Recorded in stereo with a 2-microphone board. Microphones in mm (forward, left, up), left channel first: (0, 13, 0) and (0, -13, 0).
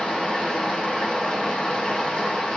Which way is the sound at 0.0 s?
55° left (ahead or behind).